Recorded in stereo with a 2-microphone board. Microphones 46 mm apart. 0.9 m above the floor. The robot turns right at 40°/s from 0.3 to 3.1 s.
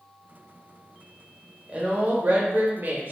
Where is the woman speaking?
135° right, 0.6 m; by 3.1 s 80° right, 0.6 m.